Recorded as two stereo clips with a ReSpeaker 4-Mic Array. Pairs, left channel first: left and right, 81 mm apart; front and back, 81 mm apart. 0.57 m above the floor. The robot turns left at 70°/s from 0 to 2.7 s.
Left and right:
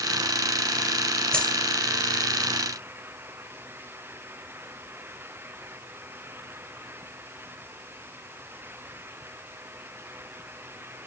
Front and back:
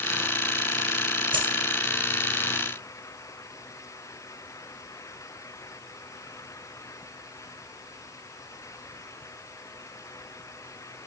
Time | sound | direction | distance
1.3 | a dropped coin | 175° left | 2.5 m